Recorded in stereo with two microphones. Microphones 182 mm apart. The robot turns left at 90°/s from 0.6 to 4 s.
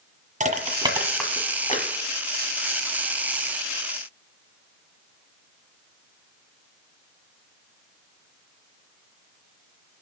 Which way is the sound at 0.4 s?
40° right (ahead or behind).